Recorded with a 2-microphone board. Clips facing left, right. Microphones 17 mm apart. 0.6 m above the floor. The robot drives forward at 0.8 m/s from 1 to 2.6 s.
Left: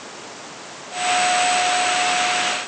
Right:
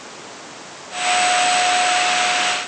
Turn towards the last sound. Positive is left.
No sound to turn to.